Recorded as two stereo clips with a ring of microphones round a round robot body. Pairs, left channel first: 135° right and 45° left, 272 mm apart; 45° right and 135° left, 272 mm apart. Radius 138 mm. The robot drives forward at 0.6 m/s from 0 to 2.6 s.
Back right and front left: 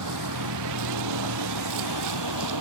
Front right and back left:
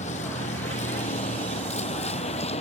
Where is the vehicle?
20° left; by 2.6 s 25° left.